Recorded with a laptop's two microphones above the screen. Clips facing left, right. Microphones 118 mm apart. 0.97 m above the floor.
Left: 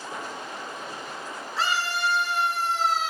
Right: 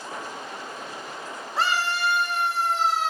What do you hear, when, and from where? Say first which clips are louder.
1.6 s a scream: right 2 dB; 85° right, 3 m